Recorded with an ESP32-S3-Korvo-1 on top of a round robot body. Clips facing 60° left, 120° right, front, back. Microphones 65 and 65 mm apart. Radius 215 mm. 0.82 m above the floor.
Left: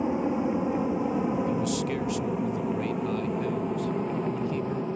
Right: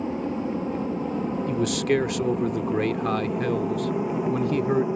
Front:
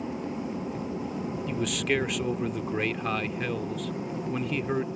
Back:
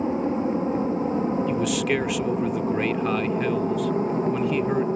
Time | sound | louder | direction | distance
0.0 | an aircraft | left 1 dB, back 9 dB | 130° left | ?
1.5 | a man speaking | right 4 dB, back 5 dB | 95° right | ?